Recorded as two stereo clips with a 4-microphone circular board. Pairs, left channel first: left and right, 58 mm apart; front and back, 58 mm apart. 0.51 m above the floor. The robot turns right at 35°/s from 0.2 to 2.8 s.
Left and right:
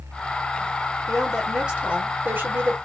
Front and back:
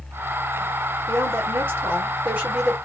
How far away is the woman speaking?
About 1.6 m.